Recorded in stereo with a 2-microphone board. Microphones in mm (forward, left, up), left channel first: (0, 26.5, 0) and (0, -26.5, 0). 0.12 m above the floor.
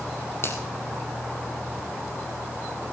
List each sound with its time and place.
0.4 s a finger snap: 50° left (ahead or behind), 4.5 m